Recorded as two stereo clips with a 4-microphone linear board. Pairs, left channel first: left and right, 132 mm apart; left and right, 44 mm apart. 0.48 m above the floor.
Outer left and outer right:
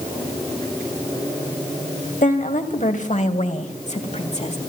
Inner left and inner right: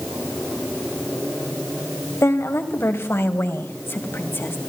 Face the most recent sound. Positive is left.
turn(degrees=55)  # may be behind; listen again after turning